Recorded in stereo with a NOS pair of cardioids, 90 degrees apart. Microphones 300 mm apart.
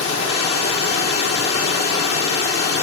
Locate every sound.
0.0 s running water: 55° left, 2 m